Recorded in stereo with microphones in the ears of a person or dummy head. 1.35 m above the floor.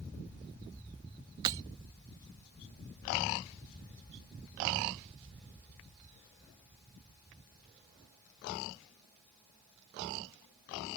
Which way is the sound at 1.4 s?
20° right (ahead or behind).